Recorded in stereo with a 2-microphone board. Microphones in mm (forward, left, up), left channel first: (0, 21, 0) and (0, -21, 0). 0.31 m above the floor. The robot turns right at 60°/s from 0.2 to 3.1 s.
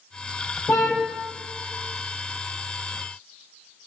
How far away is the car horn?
About 5 m.